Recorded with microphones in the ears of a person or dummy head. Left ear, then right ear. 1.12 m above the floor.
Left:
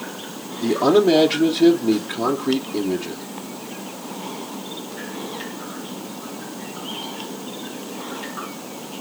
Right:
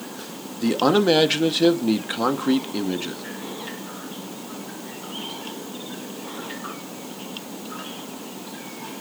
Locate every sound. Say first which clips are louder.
0.6 s a man speaking: left 3 dB; 40° right (ahead or behind), 1.1 m